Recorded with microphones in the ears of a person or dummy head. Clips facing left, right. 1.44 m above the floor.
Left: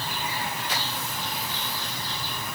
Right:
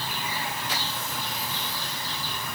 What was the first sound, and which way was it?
Only background noise.